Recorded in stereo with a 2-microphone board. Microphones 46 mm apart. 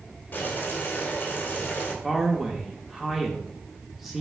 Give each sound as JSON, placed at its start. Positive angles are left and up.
{"t": 0.3, "sound": "boiling", "side_deg": 40, "distance_m": 2.0}
{"t": 2.0, "sound": "a man speaking", "side_deg": -5, "distance_m": 0.9}